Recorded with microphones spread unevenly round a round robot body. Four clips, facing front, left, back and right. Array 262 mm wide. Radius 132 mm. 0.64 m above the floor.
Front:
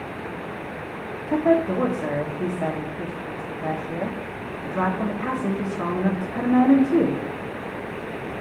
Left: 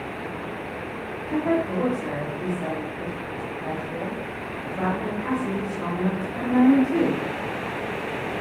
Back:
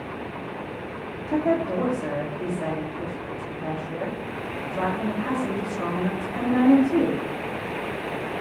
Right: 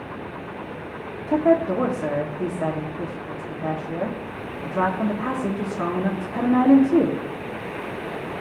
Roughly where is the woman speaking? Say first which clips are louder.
Right 5 dB, front 3 dB; right.